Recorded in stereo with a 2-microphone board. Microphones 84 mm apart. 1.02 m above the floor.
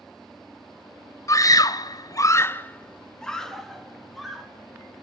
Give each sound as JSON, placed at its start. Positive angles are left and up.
{"t": 1.3, "sound": "a scream", "side_deg": 40, "distance_m": 0.9}